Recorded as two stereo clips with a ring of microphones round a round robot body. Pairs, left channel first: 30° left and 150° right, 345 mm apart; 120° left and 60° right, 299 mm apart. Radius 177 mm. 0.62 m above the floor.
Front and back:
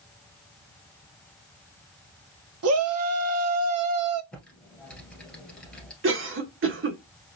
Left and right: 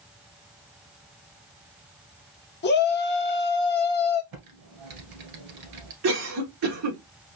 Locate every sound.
2.6 s a shout: 170° left, 0.8 m
4.3 s typing on a keyboard: 55° right, 1.8 m
6.0 s a cough: 95° right, 1.4 m